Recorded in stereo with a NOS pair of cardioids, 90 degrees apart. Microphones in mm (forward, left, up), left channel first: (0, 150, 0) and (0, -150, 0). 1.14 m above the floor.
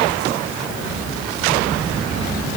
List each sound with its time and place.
Only background noise.